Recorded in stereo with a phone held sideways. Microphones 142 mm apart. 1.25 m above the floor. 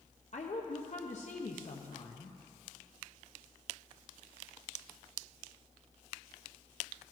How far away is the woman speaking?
About 0.7 m.